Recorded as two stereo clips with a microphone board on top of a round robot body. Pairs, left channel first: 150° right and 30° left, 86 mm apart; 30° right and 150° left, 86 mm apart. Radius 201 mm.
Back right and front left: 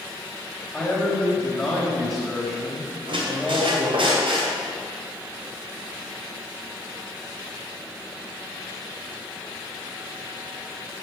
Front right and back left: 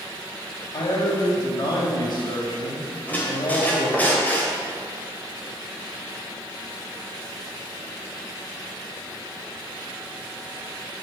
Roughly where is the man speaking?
Ahead right.